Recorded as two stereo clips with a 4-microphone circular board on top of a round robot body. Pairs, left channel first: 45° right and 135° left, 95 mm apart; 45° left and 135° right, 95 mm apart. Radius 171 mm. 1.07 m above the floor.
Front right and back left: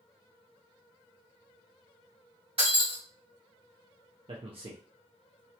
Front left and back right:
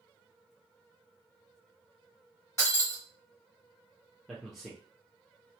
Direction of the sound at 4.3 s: 135° left.